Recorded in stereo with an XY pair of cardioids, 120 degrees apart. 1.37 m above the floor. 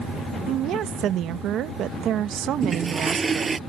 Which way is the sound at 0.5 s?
65° right.